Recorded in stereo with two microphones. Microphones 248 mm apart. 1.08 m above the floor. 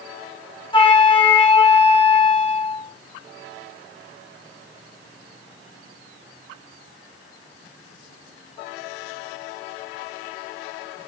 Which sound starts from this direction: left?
A flute, at 0.7 s.